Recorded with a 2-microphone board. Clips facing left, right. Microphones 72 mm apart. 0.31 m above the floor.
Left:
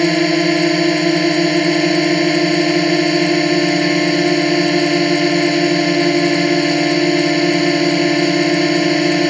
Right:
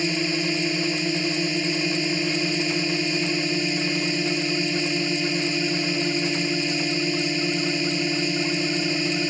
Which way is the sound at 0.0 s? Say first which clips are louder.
Left 12 dB; 70° left (ahead or behind).